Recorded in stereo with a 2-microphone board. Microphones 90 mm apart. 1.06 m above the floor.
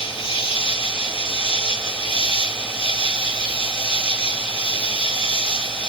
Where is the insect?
80° left, 1.8 m.